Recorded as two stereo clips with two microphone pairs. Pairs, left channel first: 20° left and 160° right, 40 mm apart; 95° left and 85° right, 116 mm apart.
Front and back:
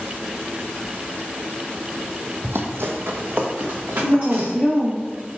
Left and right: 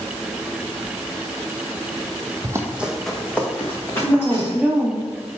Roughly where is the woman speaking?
Ahead.